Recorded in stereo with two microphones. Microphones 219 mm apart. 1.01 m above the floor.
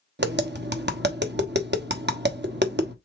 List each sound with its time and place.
0.2 s tapping: 50° right (ahead or behind), 1.1 m